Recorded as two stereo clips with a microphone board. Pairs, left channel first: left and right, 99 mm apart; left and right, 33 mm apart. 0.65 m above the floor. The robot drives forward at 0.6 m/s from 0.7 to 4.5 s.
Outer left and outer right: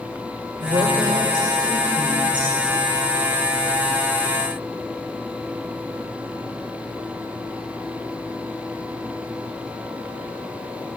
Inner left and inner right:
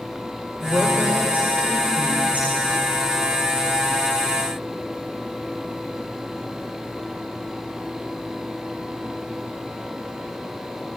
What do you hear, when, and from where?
0.6 s a woman speaking: 65° right (ahead or behind), 2.5 m; by 2.5 s 50° right (ahead or behind), 3 m